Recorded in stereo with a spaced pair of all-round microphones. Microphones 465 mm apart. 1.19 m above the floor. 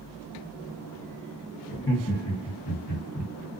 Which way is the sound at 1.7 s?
25° left (ahead or behind).